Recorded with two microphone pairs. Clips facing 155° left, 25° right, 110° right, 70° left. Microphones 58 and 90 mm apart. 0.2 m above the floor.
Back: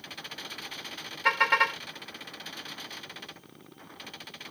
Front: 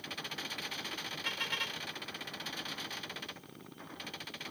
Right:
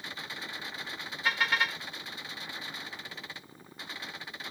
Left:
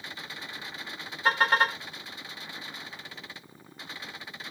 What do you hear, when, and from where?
1.2 s a car horn: 120° left